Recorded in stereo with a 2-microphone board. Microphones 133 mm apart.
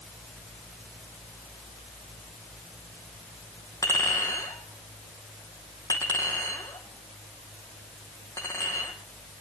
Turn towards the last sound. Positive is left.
turn(degrees=25)  # may be behind; listen again after turning